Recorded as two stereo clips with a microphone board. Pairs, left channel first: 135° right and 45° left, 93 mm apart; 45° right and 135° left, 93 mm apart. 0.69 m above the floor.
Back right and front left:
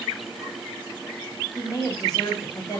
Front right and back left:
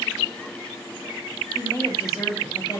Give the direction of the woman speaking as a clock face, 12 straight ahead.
3 o'clock.